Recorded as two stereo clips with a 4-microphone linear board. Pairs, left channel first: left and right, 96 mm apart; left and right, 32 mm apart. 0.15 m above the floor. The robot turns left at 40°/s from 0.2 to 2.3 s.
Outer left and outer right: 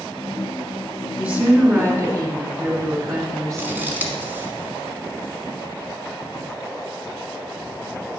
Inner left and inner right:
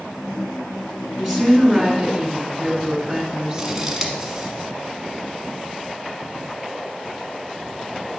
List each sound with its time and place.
1.2 s a woman speaking: 20° right, 1.5 m; by 3.9 s 65° right, 1.5 m
3.6 s scissors: 20° right (ahead or behind), 1.1 m